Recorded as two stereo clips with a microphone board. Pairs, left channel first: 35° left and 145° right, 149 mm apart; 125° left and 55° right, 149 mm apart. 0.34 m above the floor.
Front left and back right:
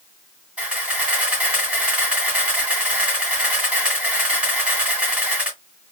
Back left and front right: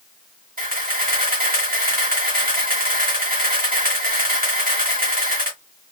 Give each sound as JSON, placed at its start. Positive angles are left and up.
{"t": 0.6, "sound": "a camera shutter", "azimuth_deg": -65, "distance_m": 1.8}